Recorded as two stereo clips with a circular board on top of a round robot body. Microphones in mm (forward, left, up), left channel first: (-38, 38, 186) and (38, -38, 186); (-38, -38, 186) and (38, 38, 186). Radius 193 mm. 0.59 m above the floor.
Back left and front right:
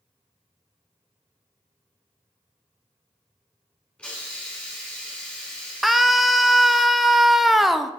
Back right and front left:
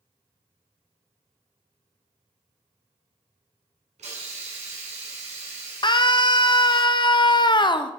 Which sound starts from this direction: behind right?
A scream, at 5.8 s.